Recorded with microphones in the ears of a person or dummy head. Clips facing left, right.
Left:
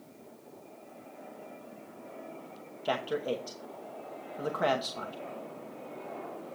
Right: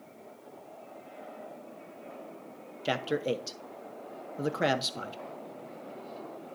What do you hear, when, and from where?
2.9 s a man speaking: 25° right (ahead or behind), 0.8 m